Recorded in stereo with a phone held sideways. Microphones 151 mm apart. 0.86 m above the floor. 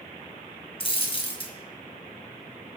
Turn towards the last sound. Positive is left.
turn(degrees=40)  # may be behind; listen again after turning